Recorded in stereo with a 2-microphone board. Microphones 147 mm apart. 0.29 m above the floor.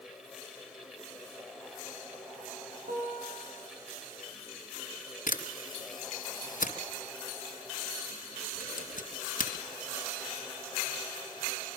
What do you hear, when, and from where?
2.9 s a guitar: 70° right (ahead or behind), 9.5 m
5.3 s a camera shutter: 65° left (ahead or behind), 3 m